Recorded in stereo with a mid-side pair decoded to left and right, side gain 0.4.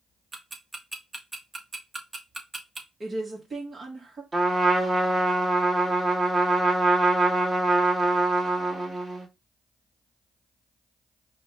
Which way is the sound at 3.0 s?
40° right.